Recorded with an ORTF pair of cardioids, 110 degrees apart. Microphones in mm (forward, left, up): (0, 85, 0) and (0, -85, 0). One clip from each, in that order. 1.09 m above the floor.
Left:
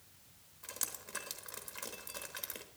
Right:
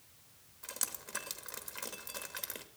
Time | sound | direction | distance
0.6 | dripping | 10° right | 1.1 m